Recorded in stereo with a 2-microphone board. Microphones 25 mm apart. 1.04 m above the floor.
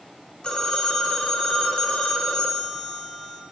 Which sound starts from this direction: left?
A phone ringing, at 0.4 s.